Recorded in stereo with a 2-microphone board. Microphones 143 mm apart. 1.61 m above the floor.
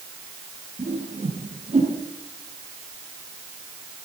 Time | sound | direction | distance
0.8 | a whoosh | 50° right (ahead or behind) | 9.5 m